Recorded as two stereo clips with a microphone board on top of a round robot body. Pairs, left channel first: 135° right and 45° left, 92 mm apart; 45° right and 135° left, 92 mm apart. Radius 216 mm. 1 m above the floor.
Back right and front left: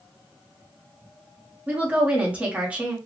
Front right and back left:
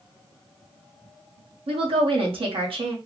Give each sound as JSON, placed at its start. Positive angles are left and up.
{"t": 1.7, "sound": "a woman speaking", "azimuth_deg": 120, "distance_m": 1.6}